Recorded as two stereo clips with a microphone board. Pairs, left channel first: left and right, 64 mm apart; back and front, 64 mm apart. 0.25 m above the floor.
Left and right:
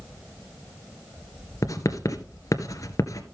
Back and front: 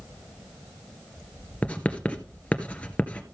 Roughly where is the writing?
Left.